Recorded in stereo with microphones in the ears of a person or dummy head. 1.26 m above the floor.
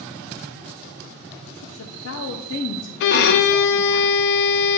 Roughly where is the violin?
Left.